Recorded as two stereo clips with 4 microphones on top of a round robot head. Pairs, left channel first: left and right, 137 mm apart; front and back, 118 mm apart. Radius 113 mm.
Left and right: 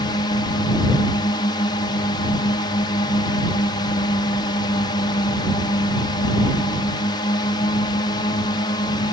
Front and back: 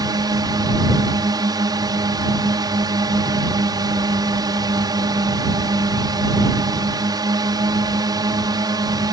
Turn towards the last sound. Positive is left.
turn(degrees=135)